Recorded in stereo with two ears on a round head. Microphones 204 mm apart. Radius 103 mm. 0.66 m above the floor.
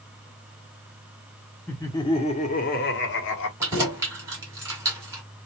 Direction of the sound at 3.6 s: 15° right (ahead or behind).